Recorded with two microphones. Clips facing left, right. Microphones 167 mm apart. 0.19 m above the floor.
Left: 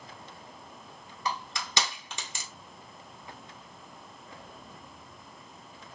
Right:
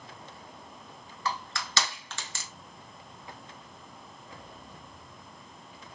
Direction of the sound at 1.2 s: 15° left (ahead or behind).